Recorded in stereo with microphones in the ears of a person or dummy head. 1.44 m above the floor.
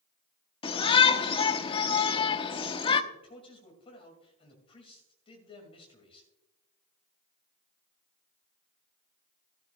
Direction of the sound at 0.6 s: 30° left (ahead or behind).